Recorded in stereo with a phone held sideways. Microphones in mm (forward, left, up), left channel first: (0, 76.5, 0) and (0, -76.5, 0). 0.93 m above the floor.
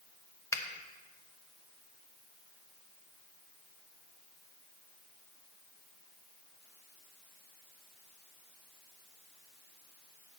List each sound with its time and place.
0.5 s a finger snap: 20° left (ahead or behind), 0.7 m